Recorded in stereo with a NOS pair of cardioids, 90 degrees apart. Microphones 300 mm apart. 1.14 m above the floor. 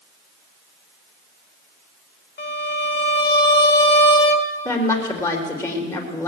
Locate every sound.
2.4 s a violin: 35° left, 1.6 m
4.7 s a woman speaking: 10° left, 3.5 m